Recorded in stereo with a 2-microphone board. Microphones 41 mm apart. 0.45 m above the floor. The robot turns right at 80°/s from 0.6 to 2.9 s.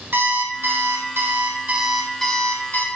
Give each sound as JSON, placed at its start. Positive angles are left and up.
{"t": 0.1, "sound": "an alarm clock", "azimuth_deg": -125, "distance_m": 1.5}